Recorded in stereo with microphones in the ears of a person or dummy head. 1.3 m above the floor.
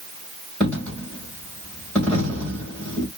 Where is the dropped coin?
10° left (ahead or behind), 2 m.